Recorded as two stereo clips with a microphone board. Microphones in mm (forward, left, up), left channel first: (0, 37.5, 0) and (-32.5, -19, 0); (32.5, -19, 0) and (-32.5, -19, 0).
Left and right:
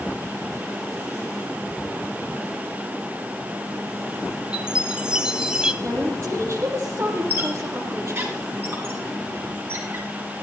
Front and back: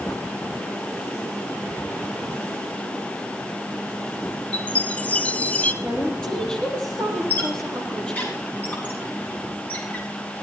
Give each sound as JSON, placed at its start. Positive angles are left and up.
{"t": 4.5, "sound": "a chime", "azimuth_deg": -50, "distance_m": 1.1}
{"t": 5.8, "sound": "a woman speaking", "azimuth_deg": -75, "distance_m": 6.0}
{"t": 7.3, "sound": "a squeak", "azimuth_deg": -60, "distance_m": 7.0}